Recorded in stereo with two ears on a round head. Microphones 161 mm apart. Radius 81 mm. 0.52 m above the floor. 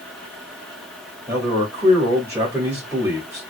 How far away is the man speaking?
About 1.4 m.